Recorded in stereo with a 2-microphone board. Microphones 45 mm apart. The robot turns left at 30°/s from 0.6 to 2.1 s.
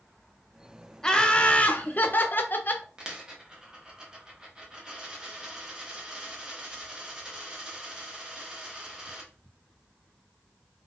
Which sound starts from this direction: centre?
A dropped coin, at 3.0 s.